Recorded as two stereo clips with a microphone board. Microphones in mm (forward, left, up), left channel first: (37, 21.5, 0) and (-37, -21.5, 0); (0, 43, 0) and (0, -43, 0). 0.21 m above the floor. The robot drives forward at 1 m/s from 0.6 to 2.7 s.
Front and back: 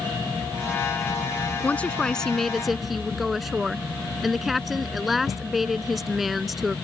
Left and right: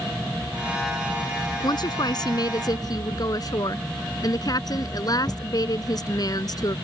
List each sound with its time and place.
1.6 s a woman speaking: 100° left; by 6.8 s 120° left